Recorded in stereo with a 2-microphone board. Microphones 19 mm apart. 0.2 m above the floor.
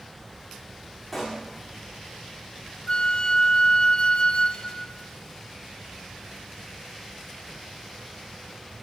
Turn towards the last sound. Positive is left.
turn(degrees=45)  # may be behind; listen again after turning